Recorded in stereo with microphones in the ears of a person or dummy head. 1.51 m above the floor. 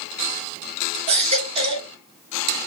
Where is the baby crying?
35° right (ahead or behind), 2.5 m.